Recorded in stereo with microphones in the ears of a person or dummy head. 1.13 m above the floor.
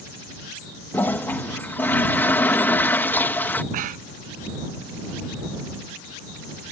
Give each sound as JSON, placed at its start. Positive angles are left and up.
{"t": 0.9, "sound": "a toilet flushing", "side_deg": 10}
{"t": 3.7, "sound": "breathing", "side_deg": -40}